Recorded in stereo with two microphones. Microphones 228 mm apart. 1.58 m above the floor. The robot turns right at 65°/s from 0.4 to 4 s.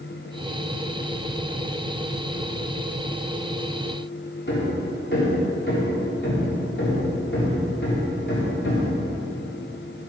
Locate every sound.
4.5 s hammering: 55° left (ahead or behind), 3.5 m